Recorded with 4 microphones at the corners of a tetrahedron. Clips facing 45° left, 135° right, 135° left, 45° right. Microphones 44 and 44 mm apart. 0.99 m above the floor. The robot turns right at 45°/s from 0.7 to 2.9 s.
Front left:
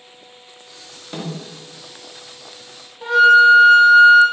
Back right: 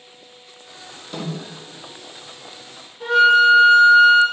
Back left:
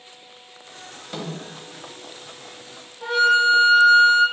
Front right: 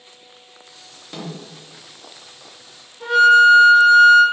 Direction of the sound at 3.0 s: 70° right.